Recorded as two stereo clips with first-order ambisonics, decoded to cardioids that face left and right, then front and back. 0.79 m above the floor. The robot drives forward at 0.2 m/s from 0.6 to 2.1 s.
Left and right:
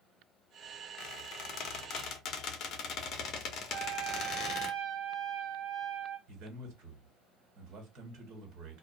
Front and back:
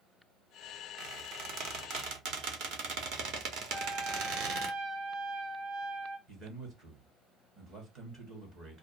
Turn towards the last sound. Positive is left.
turn(degrees=-125)